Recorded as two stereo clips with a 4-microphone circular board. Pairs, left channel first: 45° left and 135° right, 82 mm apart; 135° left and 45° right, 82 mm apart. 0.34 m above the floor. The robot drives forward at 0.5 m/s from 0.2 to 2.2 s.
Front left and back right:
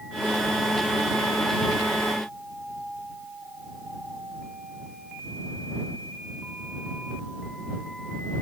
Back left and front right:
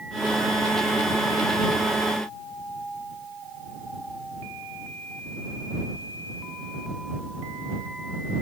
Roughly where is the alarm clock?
No alarm clock in this recording.